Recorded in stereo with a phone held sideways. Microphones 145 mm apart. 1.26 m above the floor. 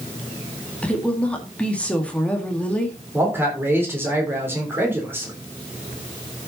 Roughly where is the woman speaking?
Centre.